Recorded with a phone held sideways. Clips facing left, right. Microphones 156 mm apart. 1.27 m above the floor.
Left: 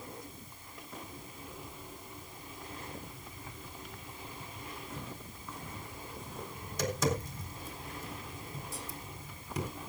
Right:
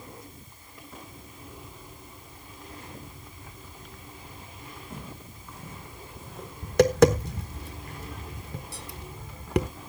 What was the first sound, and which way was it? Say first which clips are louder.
Footsteps: right 2 dB; 10° right (ahead or behind).